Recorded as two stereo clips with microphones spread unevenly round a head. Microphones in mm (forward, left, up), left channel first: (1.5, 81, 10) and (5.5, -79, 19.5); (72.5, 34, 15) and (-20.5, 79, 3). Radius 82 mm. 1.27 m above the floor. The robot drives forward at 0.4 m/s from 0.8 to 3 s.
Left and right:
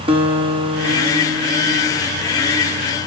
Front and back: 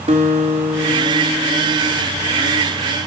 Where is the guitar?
145° right, 1.3 m; by 2.0 s 155° right, 1.7 m.